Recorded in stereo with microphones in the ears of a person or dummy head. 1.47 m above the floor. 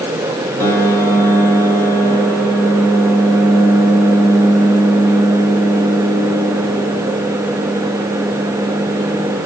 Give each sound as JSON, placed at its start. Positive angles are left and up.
{"t": 0.6, "sound": "a piano", "side_deg": 5, "distance_m": 1.0}